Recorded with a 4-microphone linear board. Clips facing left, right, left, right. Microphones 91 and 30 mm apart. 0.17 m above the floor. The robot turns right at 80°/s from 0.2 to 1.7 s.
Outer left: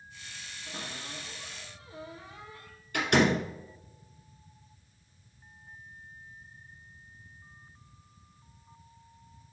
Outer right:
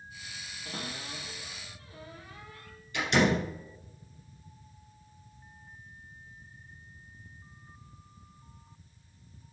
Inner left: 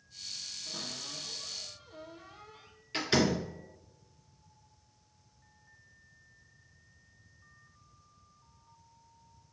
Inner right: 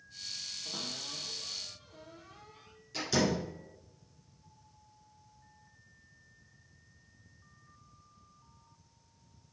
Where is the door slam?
55° left (ahead or behind), 1.7 m.